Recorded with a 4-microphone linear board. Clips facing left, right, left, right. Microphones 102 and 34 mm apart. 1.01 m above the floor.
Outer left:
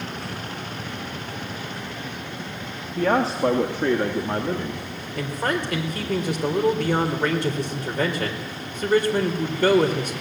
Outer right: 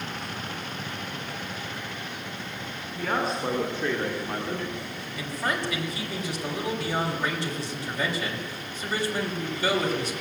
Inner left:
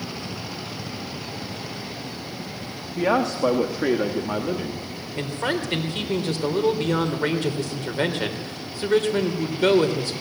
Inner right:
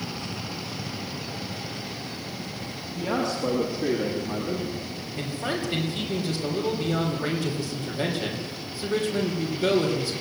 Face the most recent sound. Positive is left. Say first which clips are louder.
# outer left 5 dB, inner left 4 dB
turn(degrees=55)  # may be behind; listen again after turning